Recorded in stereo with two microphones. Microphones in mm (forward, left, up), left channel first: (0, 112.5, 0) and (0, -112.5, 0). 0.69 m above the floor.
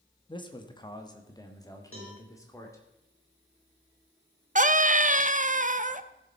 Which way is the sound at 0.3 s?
20° left (ahead or behind).